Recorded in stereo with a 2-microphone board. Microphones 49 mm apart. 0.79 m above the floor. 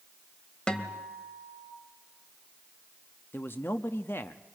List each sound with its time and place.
0.7 s a guitar: 15° left (ahead or behind), 1.7 m
3.3 s a man speaking: 60° left (ahead or behind), 0.8 m